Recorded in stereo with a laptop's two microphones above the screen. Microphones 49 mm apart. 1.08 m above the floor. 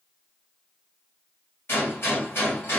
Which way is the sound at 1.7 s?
55° left (ahead or behind).